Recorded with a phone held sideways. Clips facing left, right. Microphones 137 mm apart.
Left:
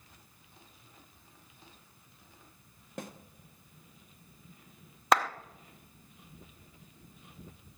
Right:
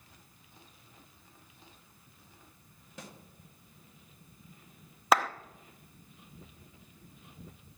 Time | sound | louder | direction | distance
3.0 | a snare drum | left 6 dB | 50° left (ahead or behind) | 1.0 m
5.1 | a clap | even | 5° right (ahead or behind) | 0.6 m